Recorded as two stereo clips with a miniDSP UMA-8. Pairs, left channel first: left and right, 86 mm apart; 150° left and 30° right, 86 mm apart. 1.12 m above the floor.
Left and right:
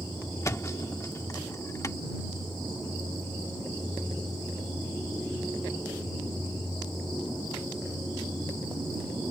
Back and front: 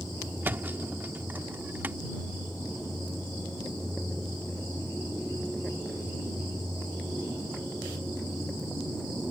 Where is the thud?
35° left.